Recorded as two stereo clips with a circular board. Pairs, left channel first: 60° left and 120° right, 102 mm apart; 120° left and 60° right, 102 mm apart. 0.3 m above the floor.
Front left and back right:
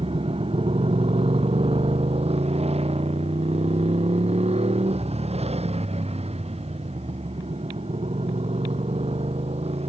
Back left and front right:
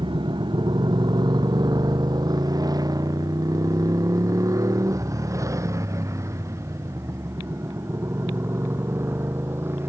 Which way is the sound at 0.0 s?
100° right.